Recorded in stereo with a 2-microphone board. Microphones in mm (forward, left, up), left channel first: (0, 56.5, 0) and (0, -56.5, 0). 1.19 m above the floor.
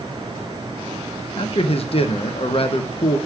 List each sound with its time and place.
1.4 s a man speaking: 55° left (ahead or behind), 0.6 m